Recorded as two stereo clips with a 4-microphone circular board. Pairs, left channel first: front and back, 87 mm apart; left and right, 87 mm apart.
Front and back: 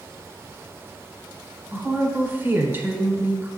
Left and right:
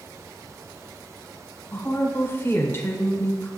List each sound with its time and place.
1.7 s a woman speaking: 135° left, 1.0 m